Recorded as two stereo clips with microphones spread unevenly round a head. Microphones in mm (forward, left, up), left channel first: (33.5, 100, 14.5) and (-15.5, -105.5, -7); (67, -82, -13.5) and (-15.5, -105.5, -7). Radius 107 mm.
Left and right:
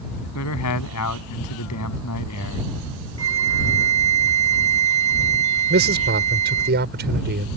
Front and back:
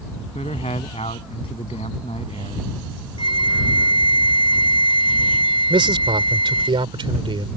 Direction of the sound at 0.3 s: 70° left.